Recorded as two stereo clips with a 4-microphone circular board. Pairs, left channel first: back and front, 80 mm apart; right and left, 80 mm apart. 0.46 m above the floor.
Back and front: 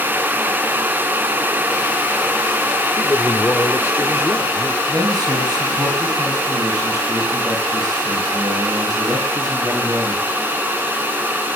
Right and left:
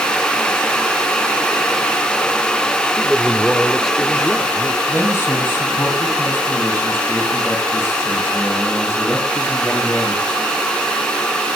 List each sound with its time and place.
3.0 s a man speaking: 175° right, 1.2 m
4.9 s a man speaking: 35° right, 4 m